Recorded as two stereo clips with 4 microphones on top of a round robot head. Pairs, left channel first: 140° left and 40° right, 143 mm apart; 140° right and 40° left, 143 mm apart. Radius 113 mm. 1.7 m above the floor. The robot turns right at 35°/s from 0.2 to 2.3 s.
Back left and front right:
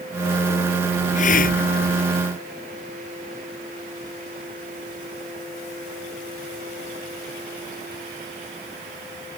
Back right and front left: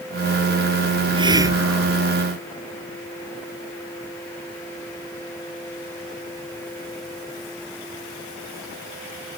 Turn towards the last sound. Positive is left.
turn(degrees=140)